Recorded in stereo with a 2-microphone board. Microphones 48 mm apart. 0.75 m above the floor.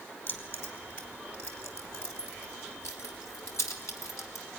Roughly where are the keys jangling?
Left.